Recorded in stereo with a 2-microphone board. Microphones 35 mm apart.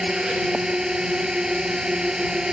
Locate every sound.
0.0 s a drone: 20° right (ahead or behind)